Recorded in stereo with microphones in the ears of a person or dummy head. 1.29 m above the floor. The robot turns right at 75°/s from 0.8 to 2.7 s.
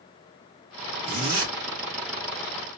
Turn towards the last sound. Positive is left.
turn(degrees=-20)